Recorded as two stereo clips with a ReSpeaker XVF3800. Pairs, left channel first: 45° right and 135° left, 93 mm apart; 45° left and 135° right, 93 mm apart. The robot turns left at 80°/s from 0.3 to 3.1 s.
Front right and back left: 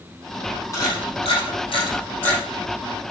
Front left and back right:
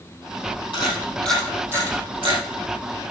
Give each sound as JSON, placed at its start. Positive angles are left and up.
{"t": 0.7, "sound": "a camera shutter", "azimuth_deg": 10, "distance_m": 5.5}